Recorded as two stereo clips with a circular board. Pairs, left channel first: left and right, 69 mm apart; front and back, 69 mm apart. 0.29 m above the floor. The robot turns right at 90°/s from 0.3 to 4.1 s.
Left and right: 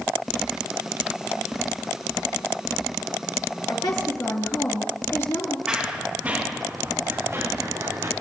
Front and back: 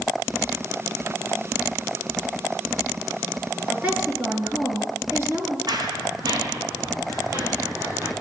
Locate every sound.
3.7 s a woman speaking: 100° left, 3.5 m; by 5.6 s 135° left, 3.5 m
5.7 s running footsteps: 170° right, 3.5 m; by 8.1 s 130° right, 4.5 m